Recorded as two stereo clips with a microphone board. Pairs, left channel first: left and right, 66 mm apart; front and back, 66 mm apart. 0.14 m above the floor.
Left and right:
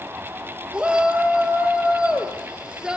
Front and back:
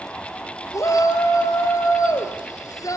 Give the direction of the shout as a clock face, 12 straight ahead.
1 o'clock.